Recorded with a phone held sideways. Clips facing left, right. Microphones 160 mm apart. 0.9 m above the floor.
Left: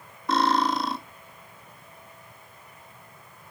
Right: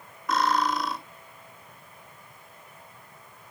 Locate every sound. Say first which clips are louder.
0.3 s cutlery clinking: left 2 dB; 30° left (ahead or behind), 1.3 m